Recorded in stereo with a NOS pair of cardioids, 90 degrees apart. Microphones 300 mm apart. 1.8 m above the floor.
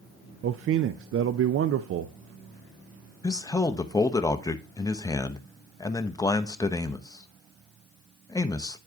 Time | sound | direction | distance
0.4 | a man speaking | 50° right | 0.5 m
3.2 | a man speaking | 10° left | 0.8 m